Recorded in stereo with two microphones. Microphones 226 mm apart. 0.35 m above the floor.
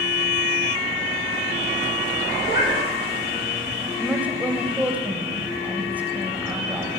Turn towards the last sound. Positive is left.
turn(degrees=-5)  # may be behind; listen again after turning